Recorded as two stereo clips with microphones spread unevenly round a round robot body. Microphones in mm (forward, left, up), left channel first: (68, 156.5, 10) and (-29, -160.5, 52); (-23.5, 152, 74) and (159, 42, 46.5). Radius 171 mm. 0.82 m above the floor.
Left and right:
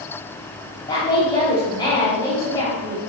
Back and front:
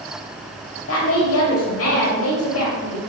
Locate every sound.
0.9 s a woman speaking: 150° left, 2 m